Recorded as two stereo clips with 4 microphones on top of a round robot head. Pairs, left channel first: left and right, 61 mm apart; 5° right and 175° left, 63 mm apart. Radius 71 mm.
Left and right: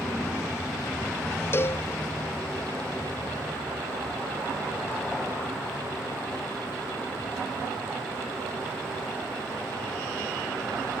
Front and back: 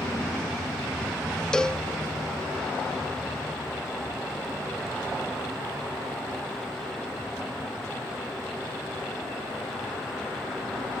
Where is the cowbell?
70° left, 0.5 m.